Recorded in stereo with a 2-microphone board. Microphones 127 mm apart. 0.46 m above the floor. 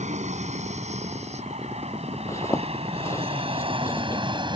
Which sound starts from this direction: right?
An aircraft, at 0.0 s.